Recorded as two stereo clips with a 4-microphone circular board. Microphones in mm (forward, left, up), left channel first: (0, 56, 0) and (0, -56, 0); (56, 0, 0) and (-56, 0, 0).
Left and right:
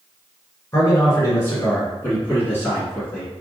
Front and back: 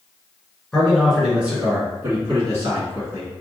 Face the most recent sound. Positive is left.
turn(degrees=155)